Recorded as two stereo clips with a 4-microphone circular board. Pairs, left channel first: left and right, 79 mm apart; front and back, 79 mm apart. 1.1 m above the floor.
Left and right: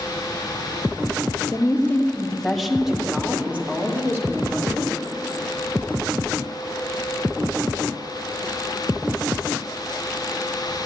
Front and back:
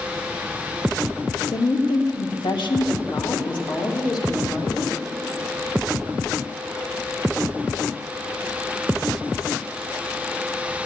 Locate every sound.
1.5 s a woman speaking: 35° left, 1.1 m; by 5.0 s 35° right, 2.5 m